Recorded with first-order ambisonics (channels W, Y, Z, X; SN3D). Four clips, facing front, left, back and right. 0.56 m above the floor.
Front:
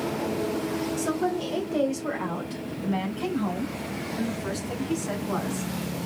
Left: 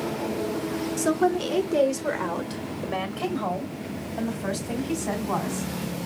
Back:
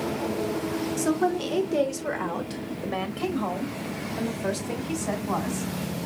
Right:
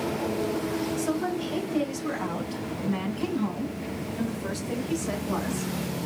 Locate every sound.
1.0 s a woman speaking: 120° left, 1.0 m; by 5.7 s 130° left, 3.5 m